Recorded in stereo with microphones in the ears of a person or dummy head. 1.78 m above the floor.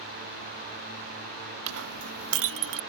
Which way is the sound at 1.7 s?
70° right (ahead or behind).